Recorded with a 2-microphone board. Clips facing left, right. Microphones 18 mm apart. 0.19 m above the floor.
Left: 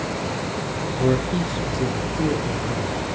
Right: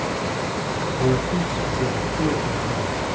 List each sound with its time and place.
1.0 s a man speaking: 10° left (ahead or behind), 2.5 m